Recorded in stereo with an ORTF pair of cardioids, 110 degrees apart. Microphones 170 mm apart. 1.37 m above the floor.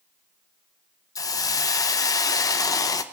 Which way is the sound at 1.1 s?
20° left.